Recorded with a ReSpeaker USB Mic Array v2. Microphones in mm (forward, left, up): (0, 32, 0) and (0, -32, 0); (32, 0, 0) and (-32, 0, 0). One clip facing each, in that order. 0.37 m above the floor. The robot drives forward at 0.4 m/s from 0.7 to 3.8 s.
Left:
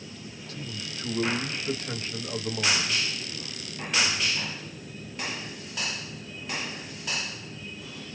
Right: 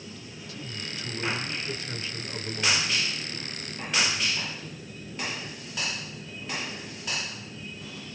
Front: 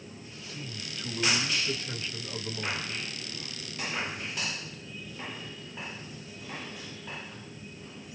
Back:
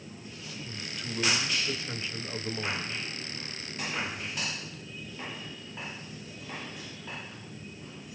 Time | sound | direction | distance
0.5 | a man speaking | 90° left | 1.5 m